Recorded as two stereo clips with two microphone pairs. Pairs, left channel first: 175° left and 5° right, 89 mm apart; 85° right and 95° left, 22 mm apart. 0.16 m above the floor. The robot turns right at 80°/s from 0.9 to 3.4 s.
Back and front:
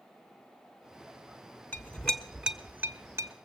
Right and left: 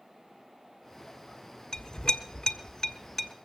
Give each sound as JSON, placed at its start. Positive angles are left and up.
{"t": 1.7, "sound": "a clink", "azimuth_deg": -135, "distance_m": 1.0}